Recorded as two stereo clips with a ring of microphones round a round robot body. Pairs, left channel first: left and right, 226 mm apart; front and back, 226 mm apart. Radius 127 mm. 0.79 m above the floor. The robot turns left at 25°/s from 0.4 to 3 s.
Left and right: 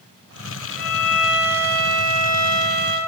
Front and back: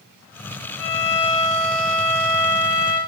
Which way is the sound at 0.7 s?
35° left.